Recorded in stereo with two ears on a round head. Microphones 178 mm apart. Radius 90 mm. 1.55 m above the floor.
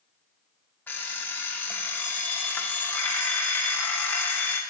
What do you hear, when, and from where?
0.9 s an alarm clock: 10° left (ahead or behind), 0.7 m